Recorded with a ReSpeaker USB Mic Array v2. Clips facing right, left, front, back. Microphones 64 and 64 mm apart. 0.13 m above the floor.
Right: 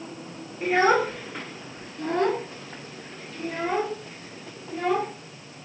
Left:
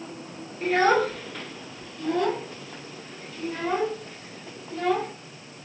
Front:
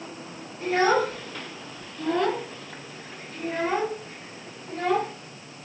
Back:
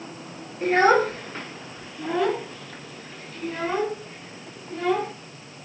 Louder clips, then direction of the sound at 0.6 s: Even, back 4 dB; 165° right.